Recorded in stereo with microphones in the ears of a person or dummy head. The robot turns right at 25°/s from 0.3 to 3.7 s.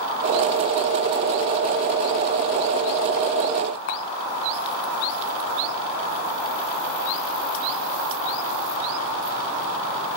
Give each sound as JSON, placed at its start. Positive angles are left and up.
{"t": 3.9, "sound": "a camera shutter", "side_deg": 60, "distance_m": 4.0}